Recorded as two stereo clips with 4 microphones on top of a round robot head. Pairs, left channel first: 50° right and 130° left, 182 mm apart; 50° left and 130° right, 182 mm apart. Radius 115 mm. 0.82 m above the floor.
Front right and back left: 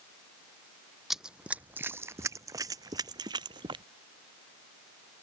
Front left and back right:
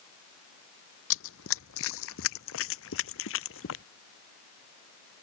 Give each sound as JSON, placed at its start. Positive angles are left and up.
{"t": 1.1, "sound": "running footsteps", "azimuth_deg": 40}